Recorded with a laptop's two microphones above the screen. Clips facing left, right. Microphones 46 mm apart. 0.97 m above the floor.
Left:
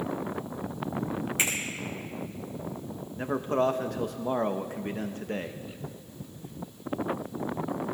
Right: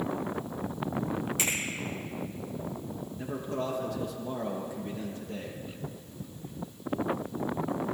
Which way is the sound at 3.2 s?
55° left (ahead or behind).